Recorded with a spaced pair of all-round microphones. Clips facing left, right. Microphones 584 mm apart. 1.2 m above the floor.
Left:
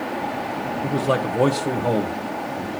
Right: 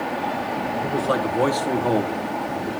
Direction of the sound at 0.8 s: 40° left (ahead or behind).